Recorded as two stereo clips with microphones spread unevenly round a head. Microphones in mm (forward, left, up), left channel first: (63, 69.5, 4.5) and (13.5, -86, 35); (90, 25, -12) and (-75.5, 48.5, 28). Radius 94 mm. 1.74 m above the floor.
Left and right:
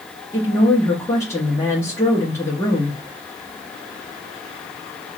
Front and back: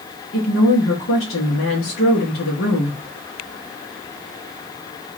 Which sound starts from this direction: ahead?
A woman speaking, at 0.3 s.